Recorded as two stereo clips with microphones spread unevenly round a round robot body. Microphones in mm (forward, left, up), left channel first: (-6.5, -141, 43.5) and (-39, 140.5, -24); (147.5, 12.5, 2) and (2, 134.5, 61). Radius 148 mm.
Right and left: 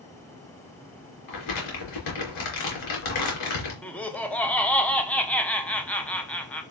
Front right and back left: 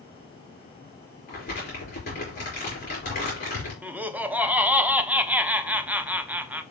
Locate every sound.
1.3 s crumpling: 105° right, 4.5 m
3.8 s laughter: 25° left, 1.1 m